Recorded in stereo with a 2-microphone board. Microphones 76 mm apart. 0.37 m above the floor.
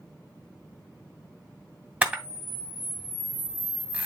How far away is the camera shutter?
About 1.4 m.